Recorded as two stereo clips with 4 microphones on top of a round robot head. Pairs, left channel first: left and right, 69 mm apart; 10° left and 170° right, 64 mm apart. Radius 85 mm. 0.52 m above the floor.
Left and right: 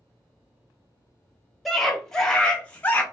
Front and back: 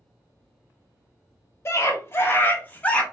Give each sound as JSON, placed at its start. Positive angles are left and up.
{"t": 1.6, "sound": "a scream", "azimuth_deg": 0, "distance_m": 1.7}